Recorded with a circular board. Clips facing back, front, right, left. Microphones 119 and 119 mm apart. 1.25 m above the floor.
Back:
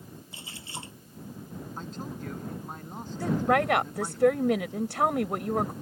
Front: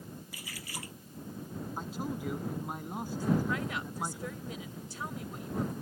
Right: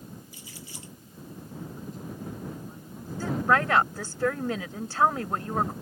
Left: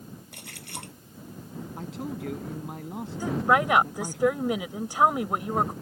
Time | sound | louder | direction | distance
0.3 | a splash | back 2 dB, left 3 dB | 115° left | ?
1.8 | a man speaking | front 1 dB, left 4 dB | 80° left | ?
3.2 | a woman speaking | back 7 dB, left 1 dB | 165° left | ?